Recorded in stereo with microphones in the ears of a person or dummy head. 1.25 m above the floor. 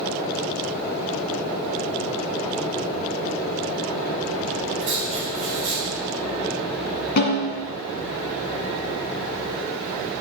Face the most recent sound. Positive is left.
turn(degrees=50)  # may be behind; listen again after turning